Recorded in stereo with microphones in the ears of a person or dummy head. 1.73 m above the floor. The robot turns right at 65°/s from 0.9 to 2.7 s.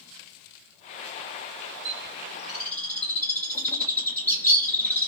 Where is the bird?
40° right (ahead or behind), 1.9 m; by 5.1 s 15° left (ahead or behind), 1.9 m.